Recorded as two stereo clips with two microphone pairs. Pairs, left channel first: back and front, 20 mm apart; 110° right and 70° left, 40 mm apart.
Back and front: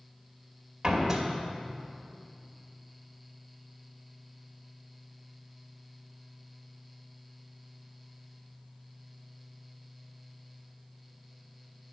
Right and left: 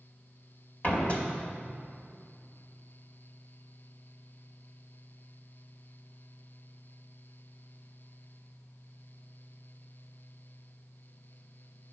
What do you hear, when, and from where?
0.8 s a door slam: 65° right, 2.5 m